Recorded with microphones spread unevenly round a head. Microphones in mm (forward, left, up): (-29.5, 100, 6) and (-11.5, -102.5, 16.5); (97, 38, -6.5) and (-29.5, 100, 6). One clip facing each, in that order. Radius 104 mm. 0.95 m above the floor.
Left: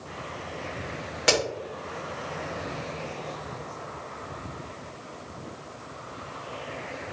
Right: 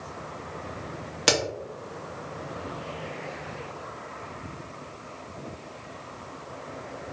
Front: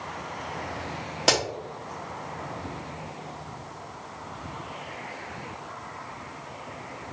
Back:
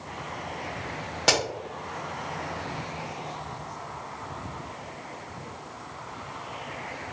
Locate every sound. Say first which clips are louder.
1.3 s a crack: left 1 dB, front 1 dB; 110° right, 1.0 m